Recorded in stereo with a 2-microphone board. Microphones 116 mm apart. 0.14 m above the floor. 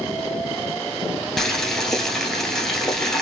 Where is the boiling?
5° left (ahead or behind), 1.3 m.